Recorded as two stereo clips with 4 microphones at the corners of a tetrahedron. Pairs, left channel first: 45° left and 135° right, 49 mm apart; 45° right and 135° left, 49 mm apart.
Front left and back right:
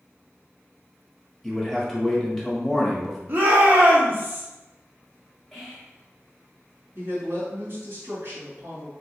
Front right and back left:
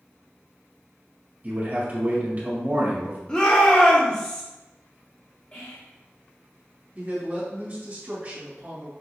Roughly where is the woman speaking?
Behind.